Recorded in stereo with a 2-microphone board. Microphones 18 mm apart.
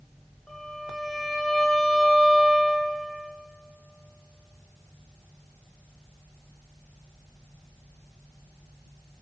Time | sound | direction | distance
0.5 | a violin | 50° left (ahead or behind) | 8 m